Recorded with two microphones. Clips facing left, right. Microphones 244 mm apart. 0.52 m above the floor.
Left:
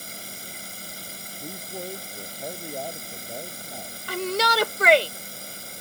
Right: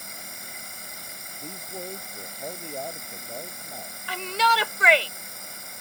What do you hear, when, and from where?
0.0 s running water: 35° left (ahead or behind)
1.4 s a man speaking: 5° left (ahead or behind)
4.1 s a shout: 45° left (ahead or behind)